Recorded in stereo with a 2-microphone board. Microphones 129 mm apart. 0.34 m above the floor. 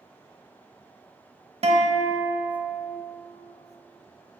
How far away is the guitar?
About 0.7 m.